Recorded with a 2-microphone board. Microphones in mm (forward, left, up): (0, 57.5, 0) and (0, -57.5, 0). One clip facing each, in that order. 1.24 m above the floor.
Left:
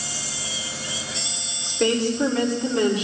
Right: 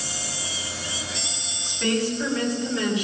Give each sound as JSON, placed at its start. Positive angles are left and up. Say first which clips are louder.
{"t": 1.6, "sound": "a woman speaking", "louder": "left 3 dB", "side_deg": 80, "distance_m": 4.5}